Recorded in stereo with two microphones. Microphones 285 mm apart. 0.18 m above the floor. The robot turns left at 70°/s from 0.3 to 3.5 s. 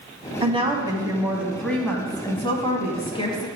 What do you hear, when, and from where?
0.4 s a woman speaking: 20° right (ahead or behind), 1.0 m; by 3.5 s 15° left (ahead or behind), 1.0 m